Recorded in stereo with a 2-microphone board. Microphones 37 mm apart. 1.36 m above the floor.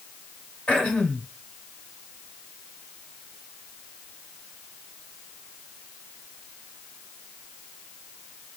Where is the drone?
No drone in this recording.